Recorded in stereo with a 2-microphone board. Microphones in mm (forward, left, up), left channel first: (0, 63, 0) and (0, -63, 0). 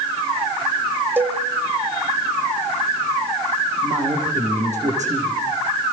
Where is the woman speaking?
70° right (ahead or behind), 7.5 m.